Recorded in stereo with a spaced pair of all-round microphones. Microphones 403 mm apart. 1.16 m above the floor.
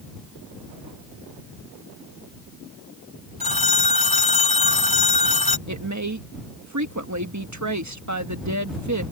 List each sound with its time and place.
3.4 s a phone ringing: 65° right (ahead or behind)
5.7 s a woman speaking: 45° right (ahead or behind)